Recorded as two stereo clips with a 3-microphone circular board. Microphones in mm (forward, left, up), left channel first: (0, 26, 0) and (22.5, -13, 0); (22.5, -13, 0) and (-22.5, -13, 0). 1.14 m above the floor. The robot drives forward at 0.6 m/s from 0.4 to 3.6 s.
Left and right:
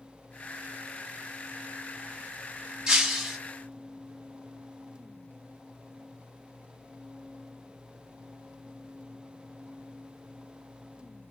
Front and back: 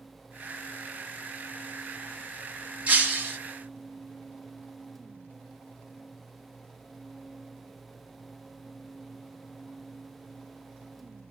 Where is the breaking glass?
130° right, 1.5 m; by 3.4 s 140° right, 1.7 m.